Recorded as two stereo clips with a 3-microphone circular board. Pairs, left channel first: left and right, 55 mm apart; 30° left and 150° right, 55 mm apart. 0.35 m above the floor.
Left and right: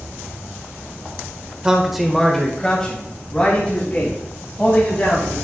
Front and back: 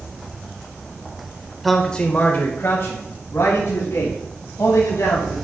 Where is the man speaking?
65° right, 1.1 m; by 5.3 s 30° left, 5 m.